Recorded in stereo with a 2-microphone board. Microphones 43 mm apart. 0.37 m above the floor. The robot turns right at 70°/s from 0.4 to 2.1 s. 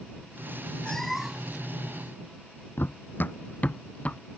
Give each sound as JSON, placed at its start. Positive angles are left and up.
{"t": 0.8, "sound": "a cat meowing", "azimuth_deg": 160}
{"t": 2.8, "sound": "running footsteps", "side_deg": 55}